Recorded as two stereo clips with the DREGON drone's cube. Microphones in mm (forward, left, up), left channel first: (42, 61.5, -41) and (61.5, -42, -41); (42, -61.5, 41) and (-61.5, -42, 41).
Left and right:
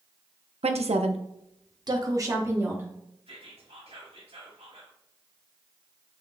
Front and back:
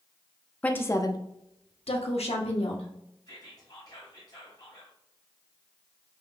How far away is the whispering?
About 2.5 m.